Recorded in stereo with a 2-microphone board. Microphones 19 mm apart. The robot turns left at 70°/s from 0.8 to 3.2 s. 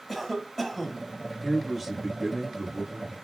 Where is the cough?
10° left (ahead or behind), 1.2 m; by 1.1 s 5° right (ahead or behind), 1.2 m.